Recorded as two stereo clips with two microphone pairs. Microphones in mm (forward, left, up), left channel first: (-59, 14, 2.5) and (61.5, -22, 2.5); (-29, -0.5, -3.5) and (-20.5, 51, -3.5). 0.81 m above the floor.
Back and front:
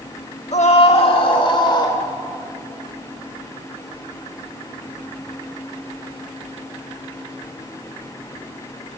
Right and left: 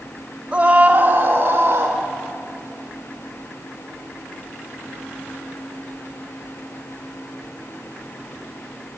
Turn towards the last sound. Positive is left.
turn(degrees=110)